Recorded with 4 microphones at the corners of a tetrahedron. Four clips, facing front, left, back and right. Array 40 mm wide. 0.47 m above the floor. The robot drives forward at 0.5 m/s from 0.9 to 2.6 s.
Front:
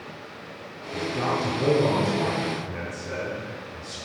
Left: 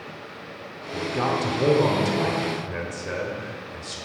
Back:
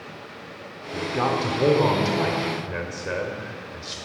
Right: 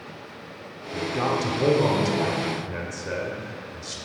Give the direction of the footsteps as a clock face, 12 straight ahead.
I don't hear footsteps.